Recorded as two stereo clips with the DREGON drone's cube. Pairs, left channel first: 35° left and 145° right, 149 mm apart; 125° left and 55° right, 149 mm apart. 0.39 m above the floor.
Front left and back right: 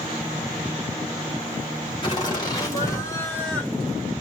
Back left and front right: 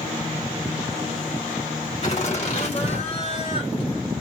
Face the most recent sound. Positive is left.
turn(degrees=125)